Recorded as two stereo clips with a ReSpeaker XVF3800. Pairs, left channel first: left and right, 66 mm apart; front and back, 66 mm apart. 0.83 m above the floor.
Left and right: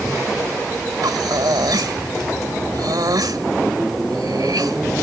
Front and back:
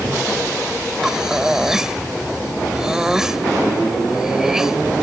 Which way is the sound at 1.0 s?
100° right.